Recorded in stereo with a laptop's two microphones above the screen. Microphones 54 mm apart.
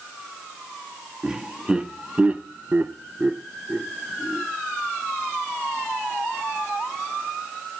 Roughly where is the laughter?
Centre.